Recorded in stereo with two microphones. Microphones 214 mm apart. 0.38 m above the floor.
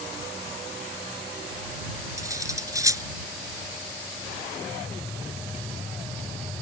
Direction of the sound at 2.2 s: 15° right (ahead or behind).